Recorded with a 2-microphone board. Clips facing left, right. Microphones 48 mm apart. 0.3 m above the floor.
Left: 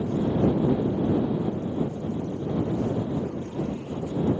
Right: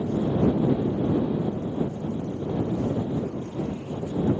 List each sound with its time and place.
Only background noise.